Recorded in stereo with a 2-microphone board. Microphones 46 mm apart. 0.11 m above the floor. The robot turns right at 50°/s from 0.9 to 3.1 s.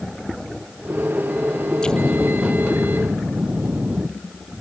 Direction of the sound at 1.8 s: 160° left.